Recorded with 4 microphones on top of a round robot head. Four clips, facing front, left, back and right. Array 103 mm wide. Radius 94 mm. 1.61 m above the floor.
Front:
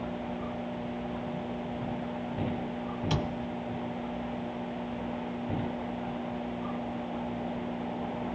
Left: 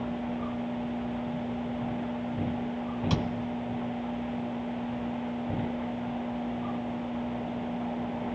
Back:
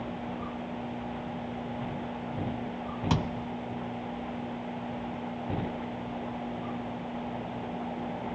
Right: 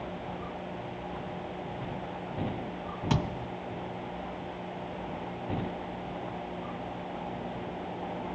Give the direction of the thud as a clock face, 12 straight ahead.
5 o'clock.